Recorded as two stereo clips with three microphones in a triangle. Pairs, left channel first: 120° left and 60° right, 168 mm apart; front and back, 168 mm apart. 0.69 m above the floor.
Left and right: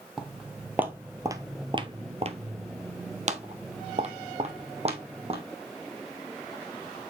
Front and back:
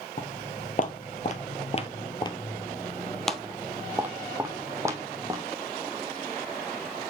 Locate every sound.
0.2 s footsteps: 25° left, 1.3 m; by 5.4 s 110° right, 2.0 m